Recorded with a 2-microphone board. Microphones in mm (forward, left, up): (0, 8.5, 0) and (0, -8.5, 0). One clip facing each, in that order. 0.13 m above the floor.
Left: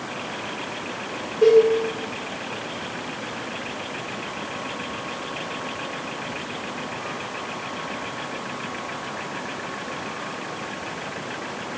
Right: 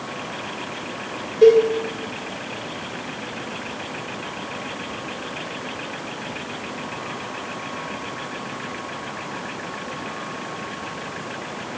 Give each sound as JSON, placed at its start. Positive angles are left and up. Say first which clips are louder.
{"t": 1.4, "sound": "a cowbell", "louder": "right 2 dB", "side_deg": -40, "distance_m": 1.8}